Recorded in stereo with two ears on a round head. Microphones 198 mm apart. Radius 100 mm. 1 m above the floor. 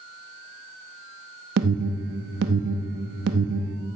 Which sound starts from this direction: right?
An alarm, at 1.6 s.